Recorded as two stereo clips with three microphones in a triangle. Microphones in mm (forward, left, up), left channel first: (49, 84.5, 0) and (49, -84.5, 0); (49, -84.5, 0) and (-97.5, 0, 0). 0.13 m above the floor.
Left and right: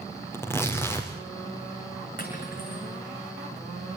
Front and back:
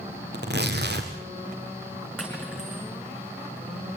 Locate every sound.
0.3 s tearing paper: 165° left, 4 m
2.2 s cutlery clinking: 60° left, 6.5 m